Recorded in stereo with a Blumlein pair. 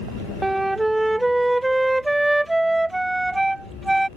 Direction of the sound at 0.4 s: 5° right.